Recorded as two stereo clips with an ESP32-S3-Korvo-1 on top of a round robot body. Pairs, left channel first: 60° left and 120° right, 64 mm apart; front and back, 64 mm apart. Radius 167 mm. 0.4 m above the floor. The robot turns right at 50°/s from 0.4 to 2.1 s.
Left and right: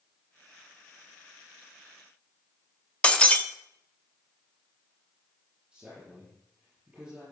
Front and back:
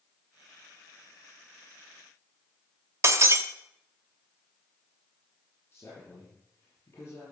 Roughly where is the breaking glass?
Behind left.